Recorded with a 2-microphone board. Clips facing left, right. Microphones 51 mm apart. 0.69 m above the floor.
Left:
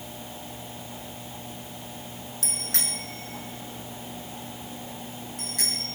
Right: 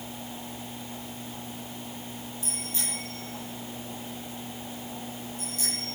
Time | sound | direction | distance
2.4 | a bicycle bell | 80° left | 5.5 m